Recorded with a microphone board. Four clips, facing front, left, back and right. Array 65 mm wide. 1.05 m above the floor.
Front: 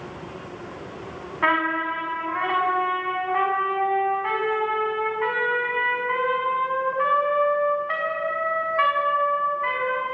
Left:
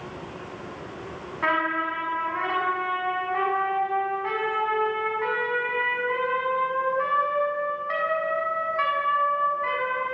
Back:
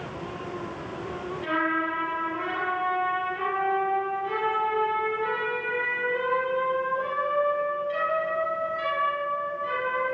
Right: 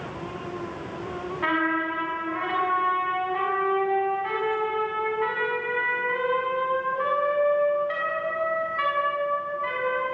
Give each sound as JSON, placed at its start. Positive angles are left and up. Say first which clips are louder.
{"t": 1.4, "sound": "a trumpet", "louder": "left 1 dB, front 5 dB", "azimuth_deg": 10, "distance_m": 7.0}